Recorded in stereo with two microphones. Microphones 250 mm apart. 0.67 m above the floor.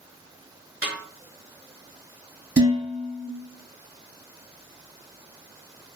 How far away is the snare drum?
About 0.7 m.